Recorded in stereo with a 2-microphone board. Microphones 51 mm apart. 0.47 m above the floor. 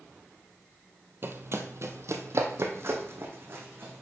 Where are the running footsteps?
45° right (ahead or behind), 0.8 m.